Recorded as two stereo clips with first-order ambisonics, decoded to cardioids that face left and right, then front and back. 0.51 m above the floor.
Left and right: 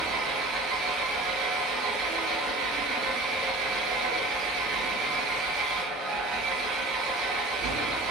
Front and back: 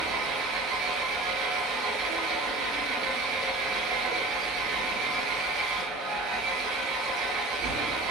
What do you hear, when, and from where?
0.0 s an engine running: 135° right, 2 m